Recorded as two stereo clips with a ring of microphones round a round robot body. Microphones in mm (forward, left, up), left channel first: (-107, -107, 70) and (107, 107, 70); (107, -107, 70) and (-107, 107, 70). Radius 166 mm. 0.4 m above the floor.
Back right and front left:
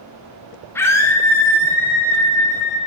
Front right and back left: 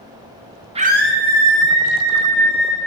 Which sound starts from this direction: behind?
A scream, at 0.8 s.